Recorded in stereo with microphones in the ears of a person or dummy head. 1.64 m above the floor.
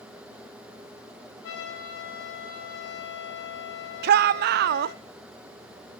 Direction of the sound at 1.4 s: 70° left (ahead or behind).